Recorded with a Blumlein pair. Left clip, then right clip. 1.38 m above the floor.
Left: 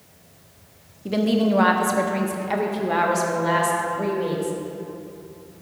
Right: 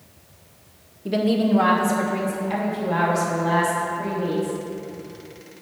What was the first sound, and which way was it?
A woman speaking, straight ahead.